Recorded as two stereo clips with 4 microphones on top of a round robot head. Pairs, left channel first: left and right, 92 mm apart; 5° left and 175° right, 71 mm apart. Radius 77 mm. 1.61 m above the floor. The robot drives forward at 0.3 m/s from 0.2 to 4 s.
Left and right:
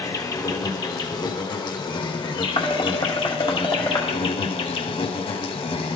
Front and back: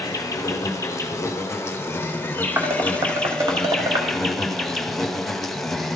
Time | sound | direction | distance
0.0 | an insect | 45° left | 1.6 m
2.6 | dishes clattering | 135° left | 1.2 m